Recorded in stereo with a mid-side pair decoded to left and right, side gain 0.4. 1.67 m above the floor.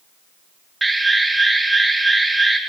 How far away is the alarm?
About 1.5 m.